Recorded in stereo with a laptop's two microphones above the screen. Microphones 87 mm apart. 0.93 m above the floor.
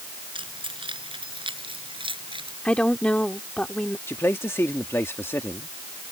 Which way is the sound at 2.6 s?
15° left (ahead or behind).